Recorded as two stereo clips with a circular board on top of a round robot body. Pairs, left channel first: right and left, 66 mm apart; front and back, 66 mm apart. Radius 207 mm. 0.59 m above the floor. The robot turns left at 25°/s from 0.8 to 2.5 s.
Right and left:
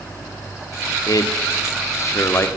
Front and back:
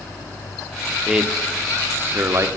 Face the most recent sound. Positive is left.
turn(degrees=-140)